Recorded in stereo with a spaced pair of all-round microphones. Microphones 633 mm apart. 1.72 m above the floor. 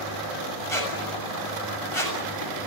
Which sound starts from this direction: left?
A squeak, at 0.7 s.